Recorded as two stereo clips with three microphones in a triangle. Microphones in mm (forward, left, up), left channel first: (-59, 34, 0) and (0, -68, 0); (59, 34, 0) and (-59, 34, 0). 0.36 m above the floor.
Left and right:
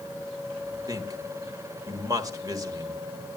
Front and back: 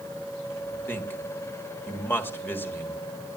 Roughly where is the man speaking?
Ahead right.